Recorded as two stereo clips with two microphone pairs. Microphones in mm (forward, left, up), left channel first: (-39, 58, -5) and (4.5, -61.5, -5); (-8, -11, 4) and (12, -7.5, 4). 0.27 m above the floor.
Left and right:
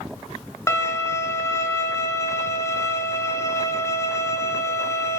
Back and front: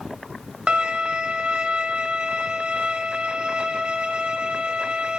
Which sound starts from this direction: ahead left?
A violin, at 0.7 s.